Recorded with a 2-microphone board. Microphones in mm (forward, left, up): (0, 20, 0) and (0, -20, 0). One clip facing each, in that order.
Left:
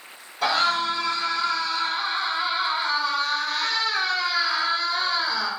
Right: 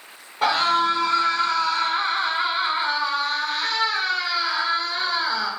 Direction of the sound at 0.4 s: 40° right (ahead or behind).